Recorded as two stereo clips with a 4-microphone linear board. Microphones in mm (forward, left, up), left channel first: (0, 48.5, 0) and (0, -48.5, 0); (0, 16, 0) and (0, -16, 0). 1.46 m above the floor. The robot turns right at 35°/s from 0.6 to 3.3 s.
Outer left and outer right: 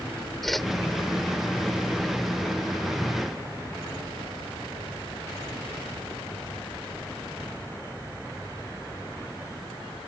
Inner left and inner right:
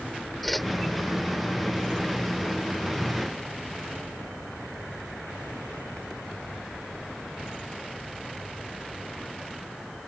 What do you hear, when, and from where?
0.4 s a whoosh: centre (ahead or behind); by 0.7 s 5° left (ahead or behind)